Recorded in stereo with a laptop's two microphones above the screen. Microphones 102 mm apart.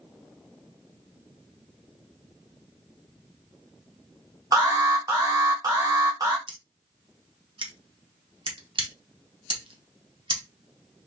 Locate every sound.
4.5 s an alarm: 40° right (ahead or behind), 0.8 m
6.5 s scissors: 60° right (ahead or behind), 0.8 m